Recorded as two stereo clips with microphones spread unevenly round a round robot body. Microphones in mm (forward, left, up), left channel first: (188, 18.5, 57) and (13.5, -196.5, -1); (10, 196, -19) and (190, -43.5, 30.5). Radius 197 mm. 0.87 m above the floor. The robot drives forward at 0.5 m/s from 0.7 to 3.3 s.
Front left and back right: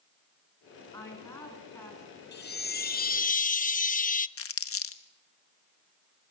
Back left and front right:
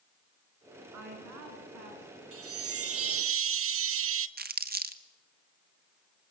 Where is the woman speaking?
30° right, 9.5 m.